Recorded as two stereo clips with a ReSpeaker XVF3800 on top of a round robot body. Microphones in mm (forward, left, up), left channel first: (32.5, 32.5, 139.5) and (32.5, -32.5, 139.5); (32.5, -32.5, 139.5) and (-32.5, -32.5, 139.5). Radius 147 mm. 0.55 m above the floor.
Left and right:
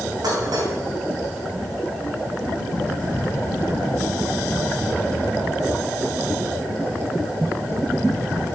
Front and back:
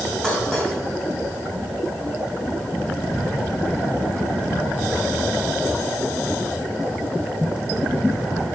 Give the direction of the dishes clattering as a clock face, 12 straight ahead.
3 o'clock.